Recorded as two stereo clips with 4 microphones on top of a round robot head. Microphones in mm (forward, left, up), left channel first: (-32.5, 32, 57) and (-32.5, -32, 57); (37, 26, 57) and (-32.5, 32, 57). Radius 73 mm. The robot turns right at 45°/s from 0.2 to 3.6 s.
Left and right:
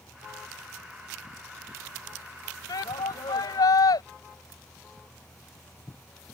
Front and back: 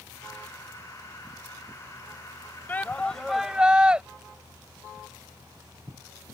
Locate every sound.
2.7 s a shout: 60° left; by 4.0 s 100° left